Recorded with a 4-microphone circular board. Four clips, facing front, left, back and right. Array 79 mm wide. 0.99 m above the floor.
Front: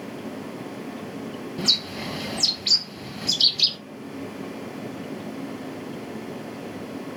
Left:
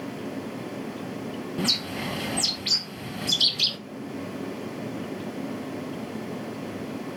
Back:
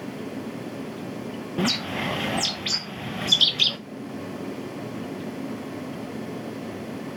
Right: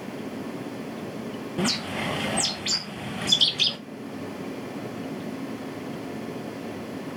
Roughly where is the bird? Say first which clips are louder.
Right 3 dB, back 5 dB; behind right.